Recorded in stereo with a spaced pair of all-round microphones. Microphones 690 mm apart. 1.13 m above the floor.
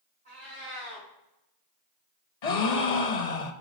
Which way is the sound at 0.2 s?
10° left (ahead or behind).